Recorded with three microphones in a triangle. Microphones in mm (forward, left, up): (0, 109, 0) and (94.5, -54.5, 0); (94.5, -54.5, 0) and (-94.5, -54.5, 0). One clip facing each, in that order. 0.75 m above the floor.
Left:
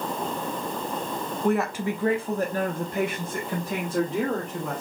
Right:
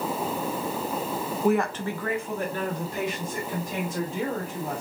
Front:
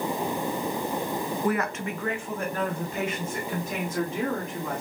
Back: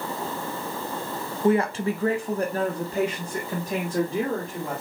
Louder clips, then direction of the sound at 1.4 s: Even, back 9 dB; 135° right.